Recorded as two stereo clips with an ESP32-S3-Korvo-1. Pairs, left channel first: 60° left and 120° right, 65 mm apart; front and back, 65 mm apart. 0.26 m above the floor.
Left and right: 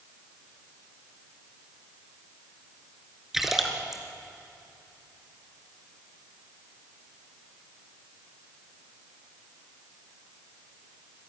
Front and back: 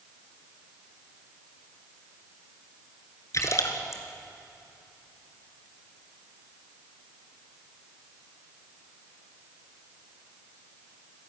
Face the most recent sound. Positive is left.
turn(degrees=-35)